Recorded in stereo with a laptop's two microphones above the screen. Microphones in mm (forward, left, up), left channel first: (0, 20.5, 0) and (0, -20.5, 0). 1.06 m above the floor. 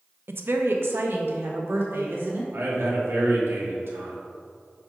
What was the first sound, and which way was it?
A woman speaking, 75° right (ahead or behind).